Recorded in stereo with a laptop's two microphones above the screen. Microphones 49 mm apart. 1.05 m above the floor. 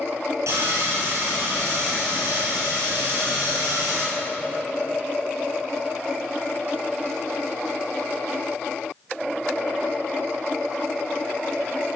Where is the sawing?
70° right (ahead or behind), 7.5 m.